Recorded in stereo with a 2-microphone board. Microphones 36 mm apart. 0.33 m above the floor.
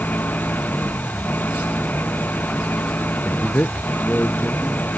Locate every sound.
0.0 s an engine running: 55° left (ahead or behind)
3.2 s a man speaking: 55° left (ahead or behind)